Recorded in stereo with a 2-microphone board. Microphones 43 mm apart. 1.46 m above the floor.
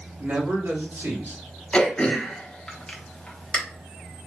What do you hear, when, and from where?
0.2 s a man speaking: 55° right (ahead or behind), 2 m; by 1.4 s 80° right, 2.5 m
1.7 s throat clearing: 20° left (ahead or behind), 1.0 m